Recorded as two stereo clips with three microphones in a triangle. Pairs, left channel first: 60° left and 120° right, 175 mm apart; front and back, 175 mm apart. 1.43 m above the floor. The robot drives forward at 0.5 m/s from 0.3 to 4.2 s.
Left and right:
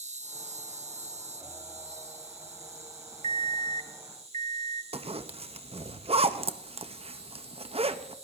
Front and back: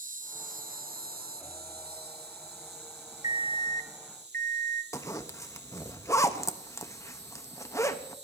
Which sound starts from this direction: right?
A zipper, at 4.9 s.